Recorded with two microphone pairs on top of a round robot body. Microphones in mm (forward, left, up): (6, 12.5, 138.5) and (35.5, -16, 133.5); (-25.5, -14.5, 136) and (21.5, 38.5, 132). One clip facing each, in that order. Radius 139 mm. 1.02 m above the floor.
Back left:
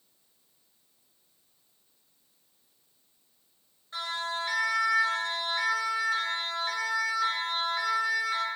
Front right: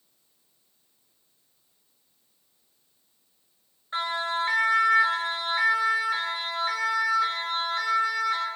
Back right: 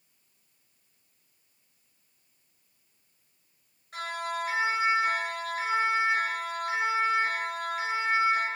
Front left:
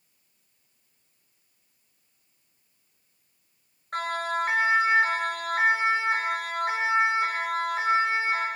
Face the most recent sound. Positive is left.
turn(degrees=50)